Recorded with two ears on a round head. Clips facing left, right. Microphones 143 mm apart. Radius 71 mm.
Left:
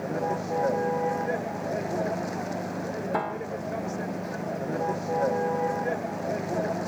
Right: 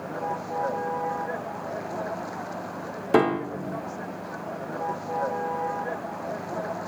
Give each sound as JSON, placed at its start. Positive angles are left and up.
{"t": 0.0, "sound": "a vehicle", "side_deg": 25}
{"t": 3.1, "sound": "a piano", "side_deg": -80}